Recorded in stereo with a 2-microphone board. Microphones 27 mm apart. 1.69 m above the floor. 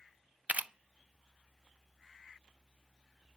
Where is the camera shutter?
55° right (ahead or behind), 0.5 m.